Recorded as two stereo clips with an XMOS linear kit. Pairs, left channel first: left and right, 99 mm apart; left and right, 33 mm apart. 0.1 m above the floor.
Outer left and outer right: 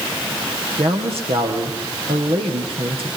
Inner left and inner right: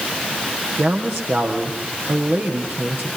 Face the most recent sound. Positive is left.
turn(degrees=-70)  # may be behind; listen again after turning